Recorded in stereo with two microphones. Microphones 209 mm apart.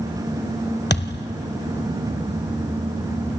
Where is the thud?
55° left (ahead or behind), 1.2 m.